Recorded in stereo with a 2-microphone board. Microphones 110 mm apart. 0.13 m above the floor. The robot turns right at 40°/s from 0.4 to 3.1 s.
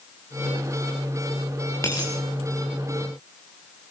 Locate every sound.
1.8 s a dropped coin: 25° left (ahead or behind), 7.5 m; by 2.1 s 40° left (ahead or behind), 7.5 m